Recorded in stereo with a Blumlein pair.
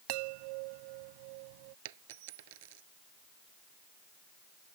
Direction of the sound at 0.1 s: 45° right.